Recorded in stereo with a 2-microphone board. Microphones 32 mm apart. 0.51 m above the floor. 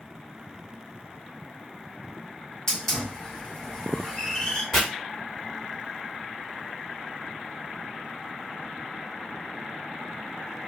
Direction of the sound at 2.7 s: 20° left (ahead or behind).